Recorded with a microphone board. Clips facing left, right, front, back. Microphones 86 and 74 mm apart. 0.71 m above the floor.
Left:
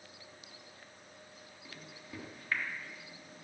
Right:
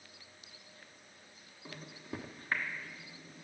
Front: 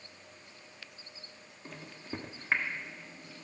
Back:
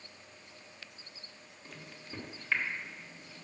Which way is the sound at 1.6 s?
45° right.